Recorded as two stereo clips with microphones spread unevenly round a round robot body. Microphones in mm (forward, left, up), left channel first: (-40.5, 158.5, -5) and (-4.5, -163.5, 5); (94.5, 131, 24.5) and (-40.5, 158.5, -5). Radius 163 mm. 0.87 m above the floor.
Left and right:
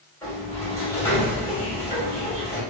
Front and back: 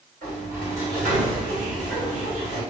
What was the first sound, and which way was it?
A sliding door, 175° left.